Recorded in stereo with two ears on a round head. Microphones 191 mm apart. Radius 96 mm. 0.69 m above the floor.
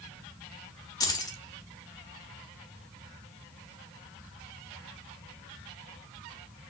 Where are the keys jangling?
15° left (ahead or behind), 0.9 m.